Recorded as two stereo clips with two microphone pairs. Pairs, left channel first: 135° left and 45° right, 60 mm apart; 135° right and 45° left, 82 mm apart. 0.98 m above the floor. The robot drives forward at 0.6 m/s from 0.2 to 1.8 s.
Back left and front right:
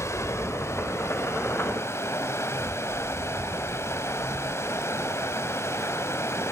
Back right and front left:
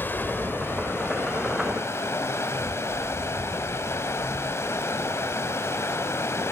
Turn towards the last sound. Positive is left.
turn(degrees=170)